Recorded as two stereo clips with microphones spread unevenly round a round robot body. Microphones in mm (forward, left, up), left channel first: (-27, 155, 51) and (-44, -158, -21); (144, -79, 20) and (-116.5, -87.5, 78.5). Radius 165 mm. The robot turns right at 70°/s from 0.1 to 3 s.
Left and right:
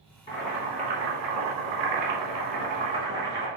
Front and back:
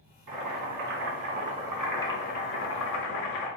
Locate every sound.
0.3 s boiling: 160° left, 1.4 m; by 3.5 s 10° right, 1.4 m